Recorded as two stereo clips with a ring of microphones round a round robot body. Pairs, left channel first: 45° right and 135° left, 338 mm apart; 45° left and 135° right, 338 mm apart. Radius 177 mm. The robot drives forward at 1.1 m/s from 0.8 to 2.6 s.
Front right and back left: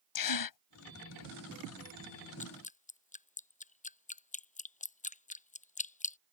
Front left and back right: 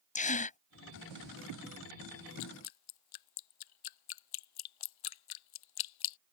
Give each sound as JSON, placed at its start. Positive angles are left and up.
{"t": 0.1, "sound": "a gasp", "azimuth_deg": -25}
{"t": 2.4, "sound": "dripping", "azimuth_deg": 25}